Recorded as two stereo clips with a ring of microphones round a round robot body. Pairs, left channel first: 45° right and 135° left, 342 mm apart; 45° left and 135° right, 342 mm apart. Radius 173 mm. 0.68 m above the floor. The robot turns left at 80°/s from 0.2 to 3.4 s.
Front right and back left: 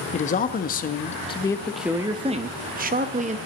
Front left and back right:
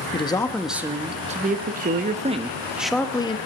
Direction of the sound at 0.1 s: 10° right.